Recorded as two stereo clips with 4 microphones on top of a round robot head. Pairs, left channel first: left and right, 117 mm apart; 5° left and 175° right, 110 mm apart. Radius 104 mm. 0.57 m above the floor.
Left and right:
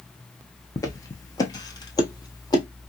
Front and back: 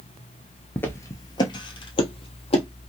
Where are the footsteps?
60° left, 0.5 m; by 2.6 s 35° left, 1.3 m.